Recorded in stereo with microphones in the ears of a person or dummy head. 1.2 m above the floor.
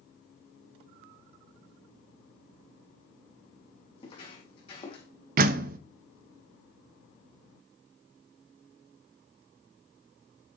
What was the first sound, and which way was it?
Footsteps, 35° left (ahead or behind).